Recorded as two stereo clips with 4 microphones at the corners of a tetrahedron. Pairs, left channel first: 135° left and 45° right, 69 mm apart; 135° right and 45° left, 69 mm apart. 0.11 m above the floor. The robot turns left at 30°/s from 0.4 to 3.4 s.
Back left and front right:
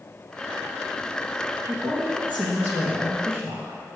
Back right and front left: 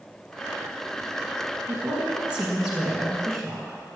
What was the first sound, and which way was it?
A woman speaking, 10° left.